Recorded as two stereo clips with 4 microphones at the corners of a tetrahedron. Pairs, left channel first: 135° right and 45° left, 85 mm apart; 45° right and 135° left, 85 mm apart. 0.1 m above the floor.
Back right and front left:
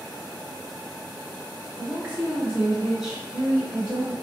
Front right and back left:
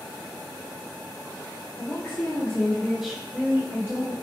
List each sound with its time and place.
1.8 s a woman speaking: 20° right, 1.9 m; by 4.1 s 145° left, 1.8 m